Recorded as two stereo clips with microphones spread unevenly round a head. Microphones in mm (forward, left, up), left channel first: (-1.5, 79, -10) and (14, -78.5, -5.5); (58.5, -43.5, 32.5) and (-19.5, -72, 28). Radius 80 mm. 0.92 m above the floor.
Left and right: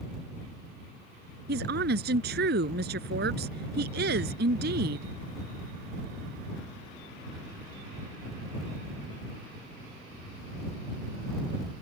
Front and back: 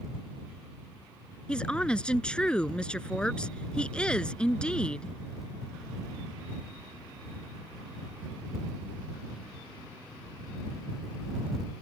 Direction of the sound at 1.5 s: 60° right.